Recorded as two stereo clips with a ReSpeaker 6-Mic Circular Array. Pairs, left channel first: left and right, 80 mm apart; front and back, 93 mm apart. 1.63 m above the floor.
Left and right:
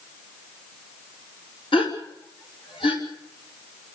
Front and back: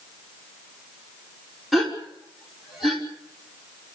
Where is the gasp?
90° left, 5 m.